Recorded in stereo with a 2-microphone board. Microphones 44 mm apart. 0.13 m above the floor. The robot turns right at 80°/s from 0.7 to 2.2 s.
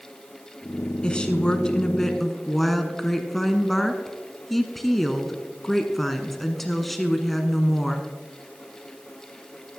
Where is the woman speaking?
20° left (ahead or behind), 1.1 m; by 8.1 s 5° left (ahead or behind), 1.1 m.